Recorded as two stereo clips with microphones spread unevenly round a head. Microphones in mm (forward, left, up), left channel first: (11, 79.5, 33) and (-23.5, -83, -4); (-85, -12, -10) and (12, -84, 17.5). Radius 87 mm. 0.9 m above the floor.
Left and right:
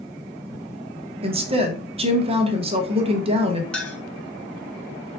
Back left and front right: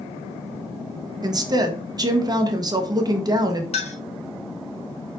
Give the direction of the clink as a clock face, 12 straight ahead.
6 o'clock.